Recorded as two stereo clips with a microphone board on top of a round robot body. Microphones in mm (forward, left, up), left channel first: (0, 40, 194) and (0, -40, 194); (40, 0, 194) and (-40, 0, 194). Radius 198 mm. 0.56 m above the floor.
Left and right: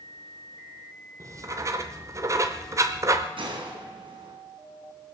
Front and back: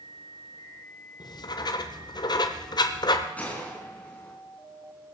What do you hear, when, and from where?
1.2 s writing: 35° right, 0.7 m
3.4 s a gunshot: 75° right, 2.5 m